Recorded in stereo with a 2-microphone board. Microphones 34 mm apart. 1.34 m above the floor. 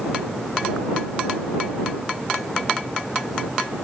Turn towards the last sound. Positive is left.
No sound to turn to.